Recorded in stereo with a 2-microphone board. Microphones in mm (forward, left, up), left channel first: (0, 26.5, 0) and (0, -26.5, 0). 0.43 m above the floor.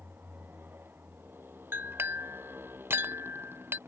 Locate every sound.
0.0 s a motorcycle: 40° right (ahead or behind); by 3.9 s 45° right (ahead or behind)
1.7 s a clink: 45° right (ahead or behind)